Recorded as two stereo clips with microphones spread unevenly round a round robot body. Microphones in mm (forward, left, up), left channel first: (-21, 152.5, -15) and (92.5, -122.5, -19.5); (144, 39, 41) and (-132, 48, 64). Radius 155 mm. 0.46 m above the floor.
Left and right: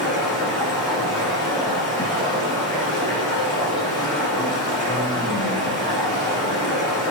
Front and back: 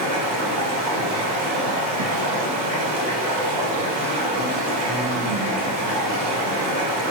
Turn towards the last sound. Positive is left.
turn(degrees=-170)